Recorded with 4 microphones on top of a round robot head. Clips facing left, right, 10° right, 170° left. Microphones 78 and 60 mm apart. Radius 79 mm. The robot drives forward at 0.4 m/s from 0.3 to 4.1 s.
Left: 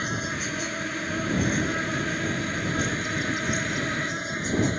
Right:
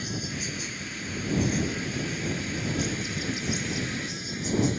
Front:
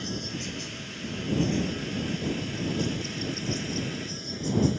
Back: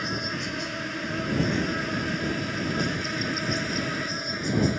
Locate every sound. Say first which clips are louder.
0.0 s an insect: left 5 dB, back 5 dB; 130° left; by 4.8 s 135° left